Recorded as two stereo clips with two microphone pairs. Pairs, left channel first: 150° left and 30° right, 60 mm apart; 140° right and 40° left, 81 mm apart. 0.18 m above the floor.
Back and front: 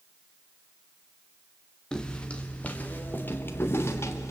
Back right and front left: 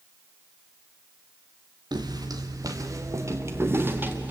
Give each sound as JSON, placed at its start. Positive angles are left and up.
{"t": 1.9, "sound": "footsteps", "azimuth_deg": 75, "distance_m": 3.0}